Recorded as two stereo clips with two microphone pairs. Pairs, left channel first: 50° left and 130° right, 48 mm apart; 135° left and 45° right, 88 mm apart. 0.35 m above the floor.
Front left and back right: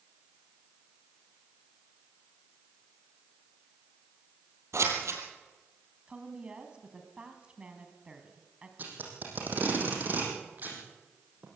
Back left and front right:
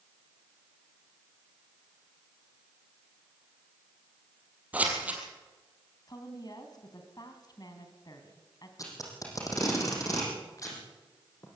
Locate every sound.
4.7 s scissors: 120° right, 3.5 m
6.1 s a woman speaking: 165° left, 3 m
8.8 s tape being pulled: 175° right, 5.5 m